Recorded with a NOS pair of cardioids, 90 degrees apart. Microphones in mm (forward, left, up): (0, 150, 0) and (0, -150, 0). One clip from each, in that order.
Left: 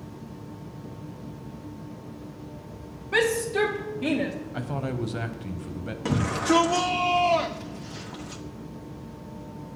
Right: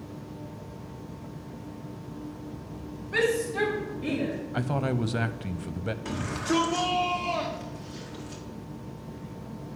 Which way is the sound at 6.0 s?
60° left.